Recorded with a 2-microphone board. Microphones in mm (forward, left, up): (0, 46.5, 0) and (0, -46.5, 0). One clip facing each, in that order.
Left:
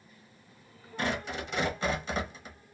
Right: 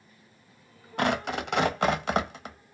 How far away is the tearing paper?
About 0.6 m.